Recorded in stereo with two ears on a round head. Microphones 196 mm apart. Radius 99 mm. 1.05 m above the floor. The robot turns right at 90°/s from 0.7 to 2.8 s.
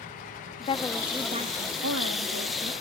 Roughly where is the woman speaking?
Behind left.